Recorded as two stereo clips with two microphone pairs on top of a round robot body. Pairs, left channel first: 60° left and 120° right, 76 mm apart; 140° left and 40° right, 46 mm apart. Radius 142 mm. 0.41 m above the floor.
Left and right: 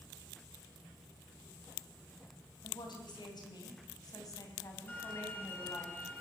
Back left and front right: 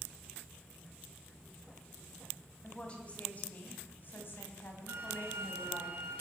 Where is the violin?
5° right, 4 m.